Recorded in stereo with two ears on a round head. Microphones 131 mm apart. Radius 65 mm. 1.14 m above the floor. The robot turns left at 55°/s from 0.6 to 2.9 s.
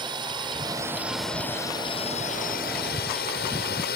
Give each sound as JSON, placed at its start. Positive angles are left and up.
{"t": 0.0, "sound": "a drone", "azimuth_deg": -145}